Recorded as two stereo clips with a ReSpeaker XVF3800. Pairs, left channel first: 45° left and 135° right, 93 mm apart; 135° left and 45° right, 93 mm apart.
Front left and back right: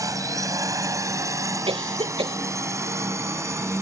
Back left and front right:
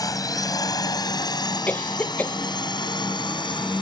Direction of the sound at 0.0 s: 175° left.